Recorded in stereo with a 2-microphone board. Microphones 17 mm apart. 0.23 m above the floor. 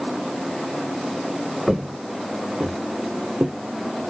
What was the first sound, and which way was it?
Footsteps, 25° right (ahead or behind).